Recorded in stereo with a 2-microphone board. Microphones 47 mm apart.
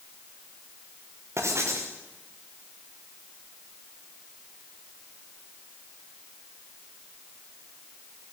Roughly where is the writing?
Right.